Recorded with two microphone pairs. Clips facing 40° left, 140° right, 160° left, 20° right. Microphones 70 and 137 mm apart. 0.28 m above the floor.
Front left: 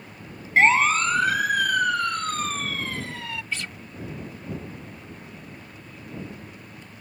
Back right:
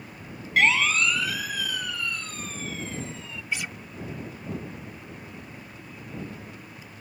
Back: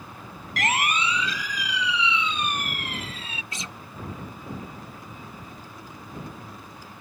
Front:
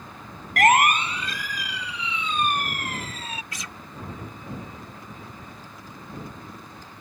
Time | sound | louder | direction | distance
0.6 | a siren | front left 4 dB, front 8 dB | 10° right | ?
3.5 | a guitar | back right 5 dB, back 1 dB | 160° left | ?